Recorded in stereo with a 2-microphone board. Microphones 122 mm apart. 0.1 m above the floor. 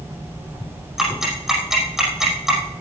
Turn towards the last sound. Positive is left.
turn(degrees=-5)  # may be behind; listen again after turning